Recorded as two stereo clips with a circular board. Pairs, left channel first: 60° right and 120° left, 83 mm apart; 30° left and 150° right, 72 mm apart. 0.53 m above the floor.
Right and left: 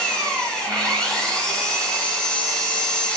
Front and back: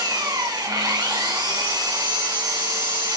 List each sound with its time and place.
0.0 s an engine running: 140° right, 1.7 m